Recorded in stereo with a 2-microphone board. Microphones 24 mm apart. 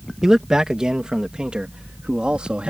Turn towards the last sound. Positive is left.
turn(degrees=-45)  # may be behind; listen again after turning